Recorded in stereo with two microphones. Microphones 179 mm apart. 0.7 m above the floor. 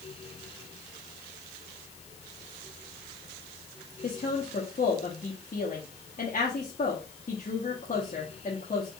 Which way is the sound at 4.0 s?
45° left (ahead or behind).